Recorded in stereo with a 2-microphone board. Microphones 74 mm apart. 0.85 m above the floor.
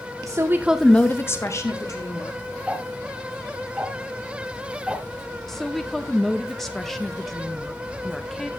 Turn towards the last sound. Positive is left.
turn(degrees=5)  # may be behind; listen again after turning